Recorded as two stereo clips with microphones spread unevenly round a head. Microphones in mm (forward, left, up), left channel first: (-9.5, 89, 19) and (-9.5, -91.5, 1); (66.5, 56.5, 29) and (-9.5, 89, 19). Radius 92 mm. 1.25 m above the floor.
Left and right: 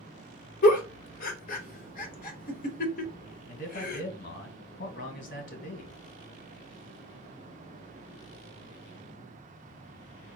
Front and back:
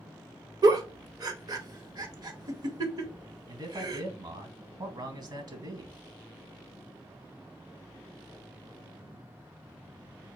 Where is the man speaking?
135° left, 1.4 m.